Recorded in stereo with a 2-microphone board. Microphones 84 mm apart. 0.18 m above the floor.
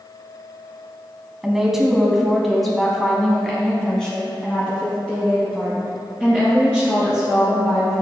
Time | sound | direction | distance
1.4 | a woman speaking | 5° right (ahead or behind) | 1.2 m